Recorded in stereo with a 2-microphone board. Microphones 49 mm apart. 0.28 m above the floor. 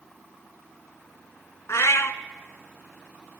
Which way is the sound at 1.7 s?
70° left (ahead or behind).